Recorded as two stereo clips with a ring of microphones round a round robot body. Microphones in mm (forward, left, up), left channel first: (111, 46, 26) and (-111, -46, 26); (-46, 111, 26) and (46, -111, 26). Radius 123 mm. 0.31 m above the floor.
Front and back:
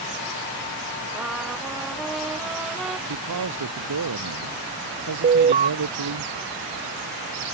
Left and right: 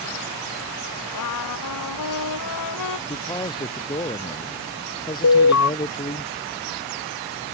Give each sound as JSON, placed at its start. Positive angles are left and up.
{"t": 1.1, "sound": "a trumpet", "azimuth_deg": 115}
{"t": 3.1, "sound": "a man speaking", "azimuth_deg": -175}
{"t": 5.2, "sound": "an alarm", "azimuth_deg": 140}